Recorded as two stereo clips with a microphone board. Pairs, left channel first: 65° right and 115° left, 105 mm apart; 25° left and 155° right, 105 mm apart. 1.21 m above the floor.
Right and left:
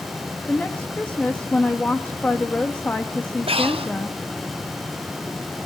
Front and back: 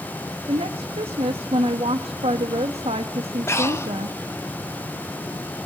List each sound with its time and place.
0.5 s a woman speaking: 145° right, 1.5 m
3.5 s breathing: 85° left, 1.2 m